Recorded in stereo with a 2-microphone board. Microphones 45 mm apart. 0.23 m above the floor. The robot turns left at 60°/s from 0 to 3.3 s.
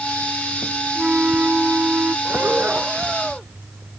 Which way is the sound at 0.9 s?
25° right.